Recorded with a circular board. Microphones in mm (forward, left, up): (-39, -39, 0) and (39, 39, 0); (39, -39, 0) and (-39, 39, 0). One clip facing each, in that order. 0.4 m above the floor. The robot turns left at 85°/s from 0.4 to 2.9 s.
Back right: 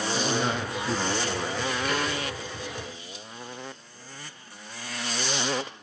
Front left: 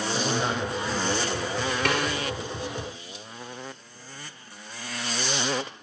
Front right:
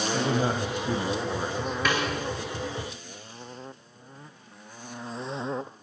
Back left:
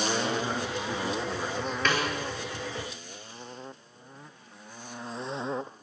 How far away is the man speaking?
About 2 m.